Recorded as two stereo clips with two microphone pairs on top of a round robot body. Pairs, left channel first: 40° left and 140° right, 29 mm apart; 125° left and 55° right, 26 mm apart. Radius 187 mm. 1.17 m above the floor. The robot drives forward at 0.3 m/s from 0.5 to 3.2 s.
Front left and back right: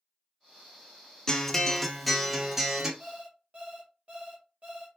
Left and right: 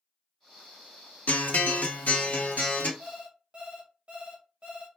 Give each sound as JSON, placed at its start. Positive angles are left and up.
{"t": 1.3, "sound": "a guitar", "azimuth_deg": 115, "distance_m": 0.5}
{"t": 3.0, "sound": "an alarm clock", "azimuth_deg": -90, "distance_m": 0.8}